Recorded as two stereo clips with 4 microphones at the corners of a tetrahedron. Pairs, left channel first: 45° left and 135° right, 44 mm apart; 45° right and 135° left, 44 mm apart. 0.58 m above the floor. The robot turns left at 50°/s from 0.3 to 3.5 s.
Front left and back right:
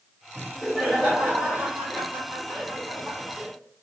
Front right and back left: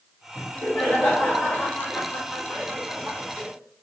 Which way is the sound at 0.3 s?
20° right.